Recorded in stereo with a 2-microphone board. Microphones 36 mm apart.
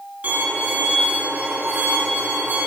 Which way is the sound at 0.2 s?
50° right (ahead or behind).